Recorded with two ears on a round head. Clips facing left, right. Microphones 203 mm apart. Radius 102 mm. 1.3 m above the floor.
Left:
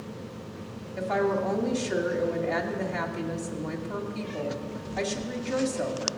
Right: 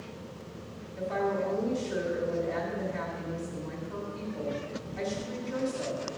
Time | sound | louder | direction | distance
1.0 | a woman speaking | left 4 dB | 75° left (ahead or behind) | 2.5 m